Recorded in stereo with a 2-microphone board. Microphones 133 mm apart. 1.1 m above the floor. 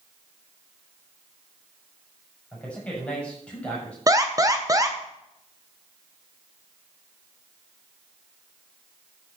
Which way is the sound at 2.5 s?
10° left (ahead or behind).